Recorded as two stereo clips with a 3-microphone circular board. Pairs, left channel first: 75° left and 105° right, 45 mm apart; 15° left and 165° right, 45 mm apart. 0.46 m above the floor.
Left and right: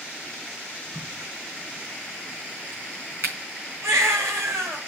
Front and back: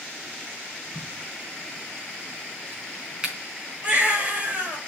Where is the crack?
95° right, 5 m.